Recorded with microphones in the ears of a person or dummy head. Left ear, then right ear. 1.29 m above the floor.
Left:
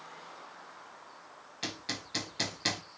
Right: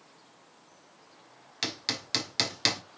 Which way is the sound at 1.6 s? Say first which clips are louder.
Right 5 dB; 70° right (ahead or behind).